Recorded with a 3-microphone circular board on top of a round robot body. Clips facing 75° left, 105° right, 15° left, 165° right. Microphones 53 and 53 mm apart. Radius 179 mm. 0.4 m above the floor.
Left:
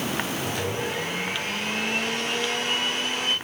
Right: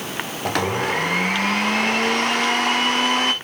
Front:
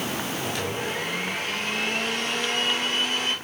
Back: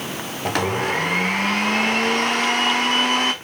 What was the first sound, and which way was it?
A blender, 130° right.